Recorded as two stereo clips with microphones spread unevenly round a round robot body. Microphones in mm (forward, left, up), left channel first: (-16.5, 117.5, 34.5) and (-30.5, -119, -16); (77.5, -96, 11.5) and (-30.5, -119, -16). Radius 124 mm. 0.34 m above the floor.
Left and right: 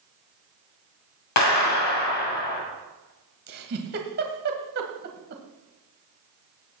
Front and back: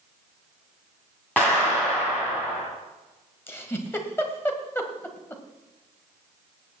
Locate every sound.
1.4 s a clap: 100° left, 2.5 m
3.5 s a giggle: 65° right, 1.9 m